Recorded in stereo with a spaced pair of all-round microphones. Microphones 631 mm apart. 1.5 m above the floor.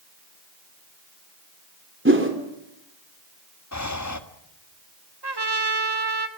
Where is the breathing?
25° left (ahead or behind), 1.6 m.